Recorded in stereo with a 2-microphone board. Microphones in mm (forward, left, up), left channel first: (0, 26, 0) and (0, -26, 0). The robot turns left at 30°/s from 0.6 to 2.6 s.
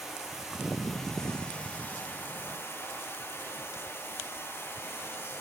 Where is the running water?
175° right, 9.5 m; by 5.4 s 125° left, 9.5 m.